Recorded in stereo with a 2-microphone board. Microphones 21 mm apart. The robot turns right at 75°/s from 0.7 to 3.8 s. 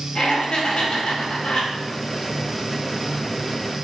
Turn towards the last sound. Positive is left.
turn(degrees=-75)